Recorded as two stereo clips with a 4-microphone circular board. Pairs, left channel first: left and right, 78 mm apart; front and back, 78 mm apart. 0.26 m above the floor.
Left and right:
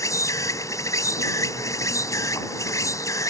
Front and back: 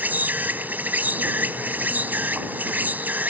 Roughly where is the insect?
Behind left.